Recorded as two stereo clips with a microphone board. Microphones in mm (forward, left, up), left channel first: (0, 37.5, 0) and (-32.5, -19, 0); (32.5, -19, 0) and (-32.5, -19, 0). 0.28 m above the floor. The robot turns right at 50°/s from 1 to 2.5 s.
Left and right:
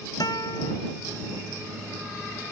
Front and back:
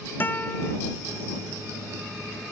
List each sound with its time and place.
0.2 s a guitar: 60° left